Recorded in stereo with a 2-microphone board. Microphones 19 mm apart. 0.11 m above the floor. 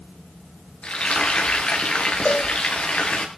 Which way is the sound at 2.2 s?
80° left.